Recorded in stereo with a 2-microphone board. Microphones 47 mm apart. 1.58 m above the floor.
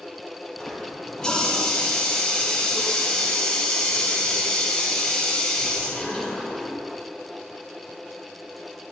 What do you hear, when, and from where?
0.6 s a running tap: 15° left (ahead or behind), 4 m